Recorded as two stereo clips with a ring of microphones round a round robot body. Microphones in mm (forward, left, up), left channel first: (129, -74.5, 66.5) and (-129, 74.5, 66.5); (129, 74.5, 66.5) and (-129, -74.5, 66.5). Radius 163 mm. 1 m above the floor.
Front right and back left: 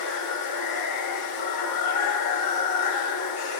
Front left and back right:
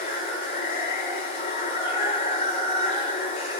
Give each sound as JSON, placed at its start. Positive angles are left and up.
{"t": 0.0, "sound": "running water", "azimuth_deg": -40, "distance_m": 2.5}